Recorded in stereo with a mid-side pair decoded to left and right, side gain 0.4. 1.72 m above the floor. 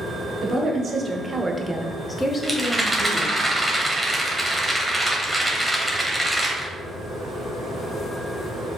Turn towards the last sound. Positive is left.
turn(degrees=-10)